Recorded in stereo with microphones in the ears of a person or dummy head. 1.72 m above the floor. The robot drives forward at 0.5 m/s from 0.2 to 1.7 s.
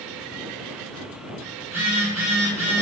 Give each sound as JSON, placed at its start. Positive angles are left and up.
{"t": 1.6, "sound": "a phone buzzing", "side_deg": -30, "distance_m": 1.2}